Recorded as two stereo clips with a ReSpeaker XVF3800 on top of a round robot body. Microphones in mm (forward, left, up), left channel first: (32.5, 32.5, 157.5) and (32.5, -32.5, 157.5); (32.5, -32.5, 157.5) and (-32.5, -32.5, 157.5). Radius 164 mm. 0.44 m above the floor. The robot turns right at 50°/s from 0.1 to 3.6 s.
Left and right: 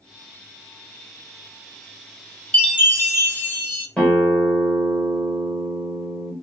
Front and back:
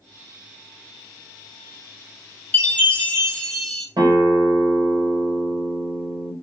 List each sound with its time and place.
2.5 s a chime: 40° left, 1.5 m; by 3.9 s 90° left, 1.5 m
4.0 s a guitar: 160° left, 2 m